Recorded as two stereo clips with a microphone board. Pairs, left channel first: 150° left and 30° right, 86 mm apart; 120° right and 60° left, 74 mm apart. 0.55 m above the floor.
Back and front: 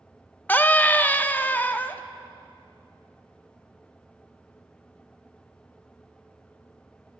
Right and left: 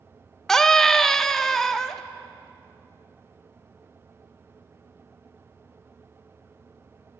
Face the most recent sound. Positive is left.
turn(degrees=170)